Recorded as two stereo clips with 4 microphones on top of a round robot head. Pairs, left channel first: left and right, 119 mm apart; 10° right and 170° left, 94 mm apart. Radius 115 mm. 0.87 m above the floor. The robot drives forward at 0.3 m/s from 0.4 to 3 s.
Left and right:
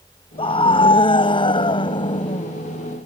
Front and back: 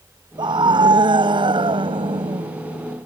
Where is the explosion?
No explosion in this recording.